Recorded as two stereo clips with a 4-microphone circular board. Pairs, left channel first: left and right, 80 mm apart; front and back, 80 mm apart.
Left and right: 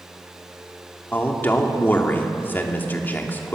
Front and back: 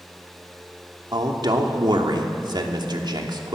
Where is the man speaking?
155° left, 3 m.